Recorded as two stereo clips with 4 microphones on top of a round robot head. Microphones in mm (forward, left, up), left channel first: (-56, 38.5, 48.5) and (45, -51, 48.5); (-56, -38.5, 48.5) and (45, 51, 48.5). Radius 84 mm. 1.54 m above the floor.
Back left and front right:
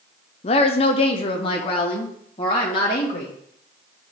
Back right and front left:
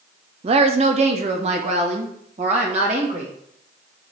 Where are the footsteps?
I don't hear footsteps.